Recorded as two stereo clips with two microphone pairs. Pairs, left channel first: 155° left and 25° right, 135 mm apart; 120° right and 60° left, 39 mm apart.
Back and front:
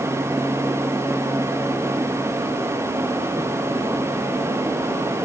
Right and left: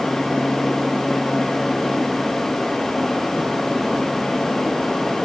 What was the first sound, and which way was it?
Only background noise.